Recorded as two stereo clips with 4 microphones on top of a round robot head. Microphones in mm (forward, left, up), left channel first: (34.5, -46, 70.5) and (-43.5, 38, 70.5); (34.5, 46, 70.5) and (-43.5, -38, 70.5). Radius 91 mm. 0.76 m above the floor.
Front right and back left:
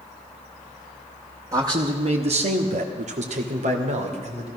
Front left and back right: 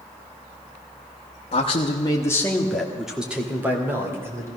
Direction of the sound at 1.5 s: 75° left.